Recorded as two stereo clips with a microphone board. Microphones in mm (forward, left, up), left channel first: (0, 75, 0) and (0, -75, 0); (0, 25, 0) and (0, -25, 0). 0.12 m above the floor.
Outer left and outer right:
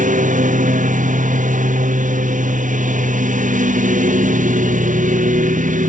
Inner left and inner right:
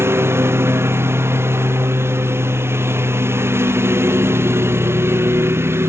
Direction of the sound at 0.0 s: 60° right (ahead or behind).